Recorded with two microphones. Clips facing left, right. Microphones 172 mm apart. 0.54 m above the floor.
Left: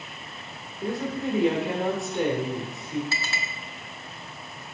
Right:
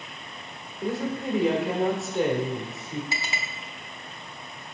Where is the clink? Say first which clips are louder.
Even; 15° right (ahead or behind), 0.8 m.